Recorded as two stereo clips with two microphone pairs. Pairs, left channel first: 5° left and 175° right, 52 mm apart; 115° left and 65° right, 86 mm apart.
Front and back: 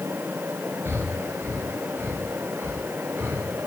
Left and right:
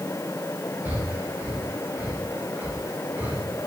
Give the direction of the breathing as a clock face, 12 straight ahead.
4 o'clock.